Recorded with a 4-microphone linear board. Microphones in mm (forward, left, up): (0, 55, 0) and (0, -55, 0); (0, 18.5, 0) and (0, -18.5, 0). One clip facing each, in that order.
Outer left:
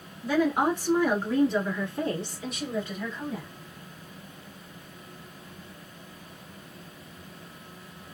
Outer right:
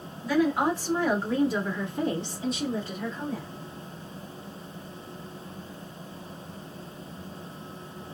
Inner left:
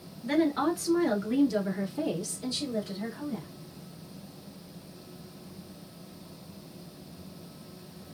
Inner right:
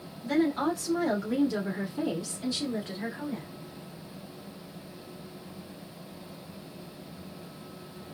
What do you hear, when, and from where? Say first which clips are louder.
0.2 s a woman speaking: even, even; 30° left (ahead or behind), 1.3 m; by 3.5 s 45° right (ahead or behind), 1.7 m